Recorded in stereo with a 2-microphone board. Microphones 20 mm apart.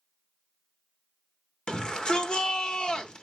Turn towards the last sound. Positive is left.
turn(degrees=50)  # may be behind; listen again after turning